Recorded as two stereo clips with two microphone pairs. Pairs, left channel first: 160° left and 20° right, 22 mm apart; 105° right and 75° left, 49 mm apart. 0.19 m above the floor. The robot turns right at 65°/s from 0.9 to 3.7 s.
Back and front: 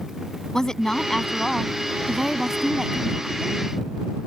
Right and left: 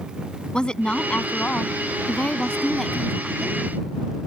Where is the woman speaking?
160° right; by 3.6 s 20° left.